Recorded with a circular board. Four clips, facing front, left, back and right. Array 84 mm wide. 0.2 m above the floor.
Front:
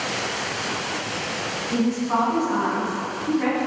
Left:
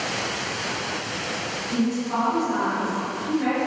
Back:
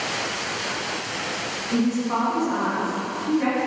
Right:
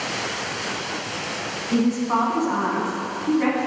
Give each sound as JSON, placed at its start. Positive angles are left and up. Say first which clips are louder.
{"t": 1.7, "sound": "a woman speaking", "louder": "right 4 dB, even", "azimuth_deg": -85, "distance_m": 1.6}